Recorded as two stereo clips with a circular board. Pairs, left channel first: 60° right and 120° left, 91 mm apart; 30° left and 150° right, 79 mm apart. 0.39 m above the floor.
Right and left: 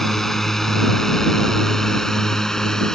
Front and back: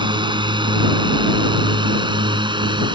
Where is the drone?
145° right.